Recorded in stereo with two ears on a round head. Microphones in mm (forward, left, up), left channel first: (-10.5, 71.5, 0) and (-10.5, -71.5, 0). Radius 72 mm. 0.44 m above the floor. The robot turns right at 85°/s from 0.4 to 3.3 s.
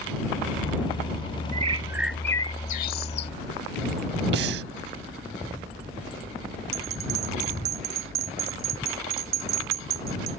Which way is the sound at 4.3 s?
70° right (ahead or behind).